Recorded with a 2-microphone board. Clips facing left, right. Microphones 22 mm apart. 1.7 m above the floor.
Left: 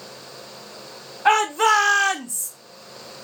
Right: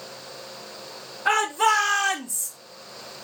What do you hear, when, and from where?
1.2 s a shout: 45° left (ahead or behind), 1.5 m; by 2.5 s 10° right (ahead or behind), 0.7 m